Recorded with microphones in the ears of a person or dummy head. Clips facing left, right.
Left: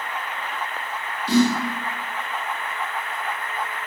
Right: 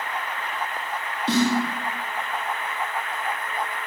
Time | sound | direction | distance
1.3 | a snare drum | 25° right (ahead or behind) | 1.4 m